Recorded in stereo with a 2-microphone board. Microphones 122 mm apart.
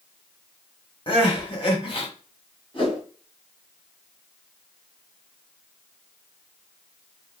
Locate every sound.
1.1 s crying: 45° left (ahead or behind), 1.7 m
2.7 s a whoosh: 45° left (ahead or behind), 1.8 m